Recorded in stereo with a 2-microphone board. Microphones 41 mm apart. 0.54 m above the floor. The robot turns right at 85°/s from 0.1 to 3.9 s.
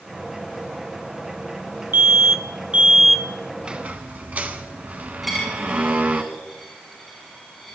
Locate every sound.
1.9 s an alarm: 105° right, 0.9 m; by 3.2 s 5° left, 0.9 m
3.6 s a squeak: 15° right (ahead or behind), 1.2 m; by 6.2 s 40° right (ahead or behind), 1.2 m
5.2 s a dropped coin: 5° right (ahead or behind), 4.5 m